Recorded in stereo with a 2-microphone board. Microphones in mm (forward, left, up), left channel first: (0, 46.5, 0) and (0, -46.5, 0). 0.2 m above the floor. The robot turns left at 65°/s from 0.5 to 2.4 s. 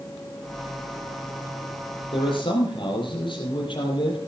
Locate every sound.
2.1 s a man speaking: 75° left (ahead or behind), 5.5 m; by 4.2 s 60° left (ahead or behind), 5.5 m